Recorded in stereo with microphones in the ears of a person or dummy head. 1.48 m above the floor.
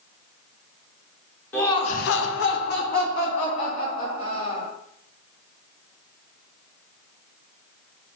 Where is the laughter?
10° left (ahead or behind), 0.7 m; by 4.7 s 35° left (ahead or behind), 3 m.